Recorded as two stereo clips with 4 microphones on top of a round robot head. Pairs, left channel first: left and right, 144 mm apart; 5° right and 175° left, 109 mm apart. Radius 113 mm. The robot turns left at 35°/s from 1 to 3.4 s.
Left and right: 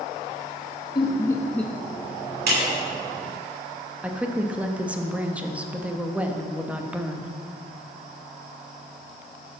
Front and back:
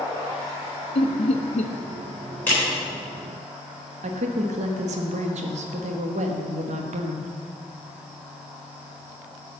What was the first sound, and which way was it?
Laughter, 25° left.